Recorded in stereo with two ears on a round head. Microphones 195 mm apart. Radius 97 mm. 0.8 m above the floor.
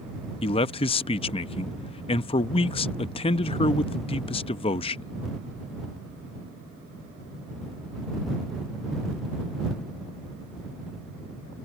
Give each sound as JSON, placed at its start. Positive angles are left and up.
{"t": 0.4, "sound": "a man speaking", "side_deg": 25}